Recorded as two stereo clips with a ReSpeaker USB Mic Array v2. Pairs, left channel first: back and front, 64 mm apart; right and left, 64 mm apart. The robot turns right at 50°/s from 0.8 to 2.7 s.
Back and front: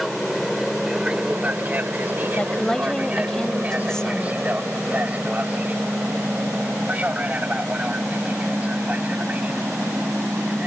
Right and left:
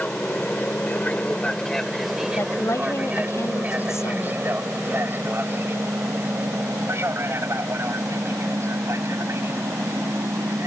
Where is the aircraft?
90° right; by 10.7 s 60° left.